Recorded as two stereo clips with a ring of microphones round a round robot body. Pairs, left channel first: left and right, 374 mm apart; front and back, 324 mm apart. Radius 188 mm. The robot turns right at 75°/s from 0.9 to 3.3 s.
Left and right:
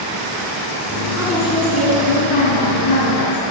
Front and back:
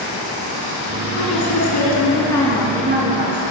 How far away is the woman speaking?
About 4.5 m.